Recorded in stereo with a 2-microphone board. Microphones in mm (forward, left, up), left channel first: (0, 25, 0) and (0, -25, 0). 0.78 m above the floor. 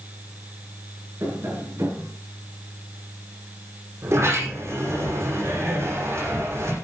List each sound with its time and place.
1.2 s tapping: 85° right, 8.5 m
4.0 s a sliding door: 65° right (ahead or behind), 9 m